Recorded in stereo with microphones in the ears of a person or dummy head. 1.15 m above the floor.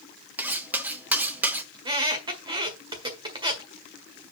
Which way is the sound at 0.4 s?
5° right (ahead or behind).